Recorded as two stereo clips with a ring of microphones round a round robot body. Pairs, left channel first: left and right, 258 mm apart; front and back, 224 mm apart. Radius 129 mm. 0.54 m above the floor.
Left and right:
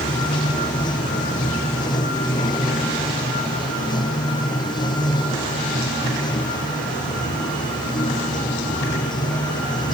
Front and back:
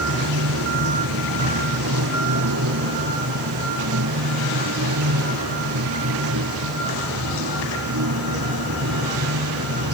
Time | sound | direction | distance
0.0 | running water | 165° left | ?